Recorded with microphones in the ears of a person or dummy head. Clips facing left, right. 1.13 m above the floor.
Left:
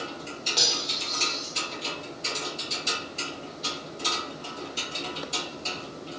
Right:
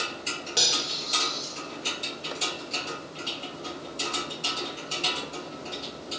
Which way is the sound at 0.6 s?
10° right (ahead or behind).